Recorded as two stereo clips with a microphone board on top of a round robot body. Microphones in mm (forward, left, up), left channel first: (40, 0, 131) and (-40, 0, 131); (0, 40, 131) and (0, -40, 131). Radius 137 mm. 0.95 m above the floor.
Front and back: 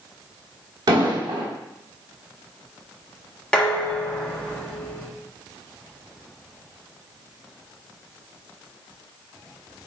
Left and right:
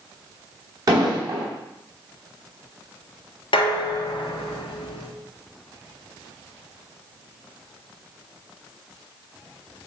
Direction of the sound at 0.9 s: 135° right.